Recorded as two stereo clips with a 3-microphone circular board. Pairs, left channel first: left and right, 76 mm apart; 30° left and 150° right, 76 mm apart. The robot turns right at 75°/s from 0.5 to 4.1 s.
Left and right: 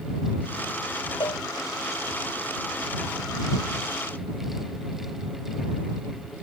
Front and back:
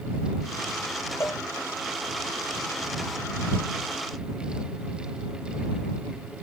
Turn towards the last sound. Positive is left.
turn(degrees=-60)